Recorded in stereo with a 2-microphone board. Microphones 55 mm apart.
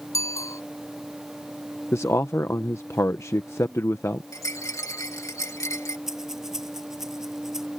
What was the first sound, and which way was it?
A bicycle bell, 75° left (ahead or behind).